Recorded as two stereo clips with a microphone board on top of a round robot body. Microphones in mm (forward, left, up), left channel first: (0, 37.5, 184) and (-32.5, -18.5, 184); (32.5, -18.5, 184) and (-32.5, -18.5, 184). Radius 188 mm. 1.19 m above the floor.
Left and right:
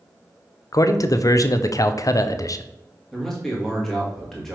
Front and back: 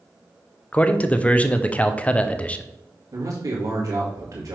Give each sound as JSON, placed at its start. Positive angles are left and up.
{"t": 0.7, "sound": "a man speaking", "azimuth_deg": 65, "distance_m": 0.7}
{"t": 3.1, "sound": "a man speaking", "azimuth_deg": 145, "distance_m": 2.0}